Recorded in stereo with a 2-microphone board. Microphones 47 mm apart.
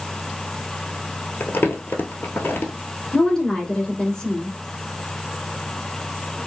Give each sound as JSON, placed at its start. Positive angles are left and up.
{"t": 1.4, "sound": "crumpling", "side_deg": 50, "distance_m": 0.7}
{"t": 3.1, "sound": "a woman speaking", "side_deg": 15, "distance_m": 1.1}